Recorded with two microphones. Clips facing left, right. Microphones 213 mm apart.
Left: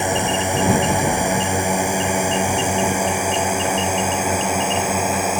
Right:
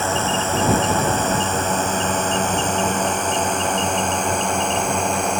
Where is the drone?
15° left (ahead or behind); by 5.4 s 5° left (ahead or behind).